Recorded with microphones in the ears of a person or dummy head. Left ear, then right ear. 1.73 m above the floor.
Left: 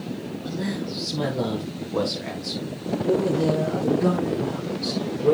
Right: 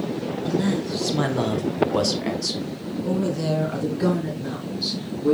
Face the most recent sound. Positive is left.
turn(degrees=-40)  # may be behind; listen again after turning